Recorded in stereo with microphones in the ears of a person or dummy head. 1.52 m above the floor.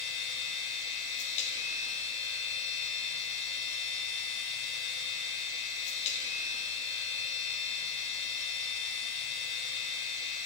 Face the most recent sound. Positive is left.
turn(degrees=40)  # may be behind; listen again after turning